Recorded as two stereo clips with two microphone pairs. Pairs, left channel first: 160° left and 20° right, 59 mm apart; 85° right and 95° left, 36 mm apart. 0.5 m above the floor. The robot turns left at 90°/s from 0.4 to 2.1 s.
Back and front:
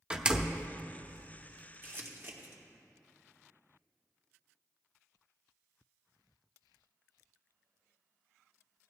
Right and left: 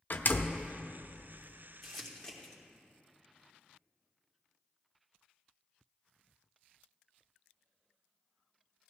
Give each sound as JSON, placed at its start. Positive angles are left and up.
{"t": 0.1, "sound": "a door slam", "azimuth_deg": -85, "distance_m": 0.6}
{"t": 1.8, "sound": "crumpling", "azimuth_deg": 0, "distance_m": 1.6}